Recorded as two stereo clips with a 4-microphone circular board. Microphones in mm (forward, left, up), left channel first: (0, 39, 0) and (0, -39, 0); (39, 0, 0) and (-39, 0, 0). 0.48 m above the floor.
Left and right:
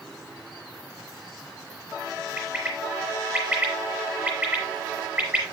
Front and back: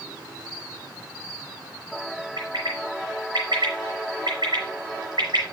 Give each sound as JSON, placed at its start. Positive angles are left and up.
{"t": 2.4, "sound": "a bird", "azimuth_deg": -155, "distance_m": 5.5}